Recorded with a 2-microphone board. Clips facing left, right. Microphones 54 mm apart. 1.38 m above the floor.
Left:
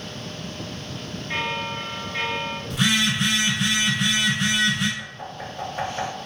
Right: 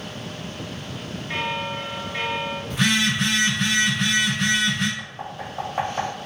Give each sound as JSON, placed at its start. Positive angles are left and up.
{"t": 1.3, "sound": "a bell", "side_deg": -5, "distance_m": 0.7}
{"t": 2.7, "sound": "a phone buzzing", "side_deg": -45, "distance_m": 1.7}
{"t": 5.0, "sound": "knocking", "side_deg": -80, "distance_m": 1.7}